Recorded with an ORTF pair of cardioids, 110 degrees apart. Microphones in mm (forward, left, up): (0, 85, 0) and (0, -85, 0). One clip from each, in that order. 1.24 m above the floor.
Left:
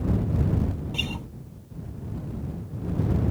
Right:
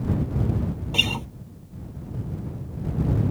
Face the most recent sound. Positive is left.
turn(degrees=-50)